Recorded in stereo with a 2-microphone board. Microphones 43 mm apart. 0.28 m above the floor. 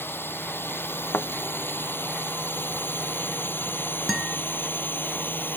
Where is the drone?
55° left (ahead or behind); by 5.6 s 45° left (ahead or behind).